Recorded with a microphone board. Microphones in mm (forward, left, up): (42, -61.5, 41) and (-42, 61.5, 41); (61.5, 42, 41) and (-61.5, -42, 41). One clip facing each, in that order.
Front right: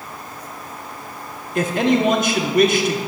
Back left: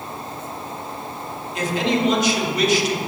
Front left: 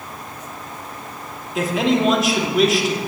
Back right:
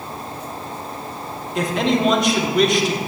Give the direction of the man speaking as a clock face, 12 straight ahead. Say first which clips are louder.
Front right 4 dB, front left 1 dB; 2 o'clock.